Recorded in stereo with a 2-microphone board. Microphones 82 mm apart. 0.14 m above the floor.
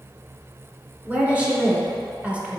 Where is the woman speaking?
15° right (ahead or behind), 1.4 m.